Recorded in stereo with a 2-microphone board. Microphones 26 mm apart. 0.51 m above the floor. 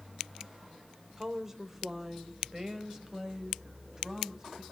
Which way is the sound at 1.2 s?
15° right (ahead or behind).